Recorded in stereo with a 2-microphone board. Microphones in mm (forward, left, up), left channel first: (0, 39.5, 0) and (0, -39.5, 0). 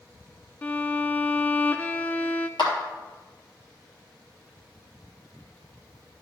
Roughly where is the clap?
Left.